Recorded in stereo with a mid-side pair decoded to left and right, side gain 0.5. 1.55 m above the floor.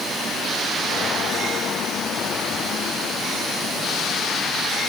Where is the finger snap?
I don't hear a finger snap.